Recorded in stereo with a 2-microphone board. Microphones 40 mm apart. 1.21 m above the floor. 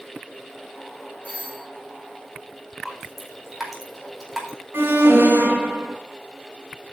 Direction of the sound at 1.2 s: 45° left (ahead or behind).